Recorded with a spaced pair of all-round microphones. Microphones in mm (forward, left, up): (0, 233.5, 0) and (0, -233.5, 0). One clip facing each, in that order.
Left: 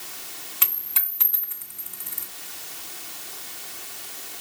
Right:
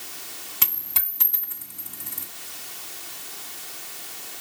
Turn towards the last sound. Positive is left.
turn(degrees=-60)  # may be behind; listen again after turning